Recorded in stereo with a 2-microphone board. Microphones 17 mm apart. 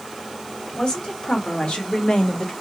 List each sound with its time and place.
0.8 s a woman speaking: 75° left (ahead or behind), 1.6 m; by 2.5 s 65° left (ahead or behind), 0.8 m